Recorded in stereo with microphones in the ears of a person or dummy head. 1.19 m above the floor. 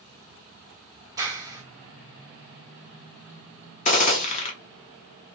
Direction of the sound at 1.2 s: 15° right (ahead or behind).